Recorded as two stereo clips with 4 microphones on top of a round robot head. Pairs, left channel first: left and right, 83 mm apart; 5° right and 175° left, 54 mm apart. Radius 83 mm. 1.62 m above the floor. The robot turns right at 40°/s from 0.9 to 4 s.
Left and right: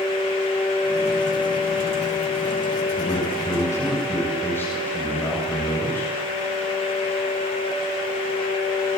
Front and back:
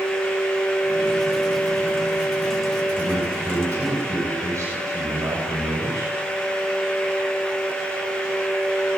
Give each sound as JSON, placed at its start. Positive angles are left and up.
{"t": 3.0, "sound": "a man speaking", "azimuth_deg": 115, "distance_m": 8.0}